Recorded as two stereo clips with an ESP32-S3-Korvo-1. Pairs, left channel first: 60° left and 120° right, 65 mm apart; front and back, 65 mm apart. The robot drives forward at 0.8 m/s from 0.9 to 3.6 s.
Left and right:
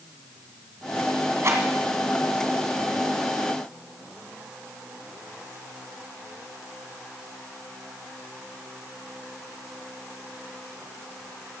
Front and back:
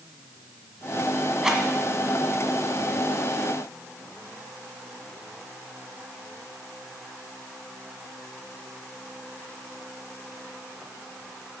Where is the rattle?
100° right, 2 m; by 1.6 s 105° right, 2 m.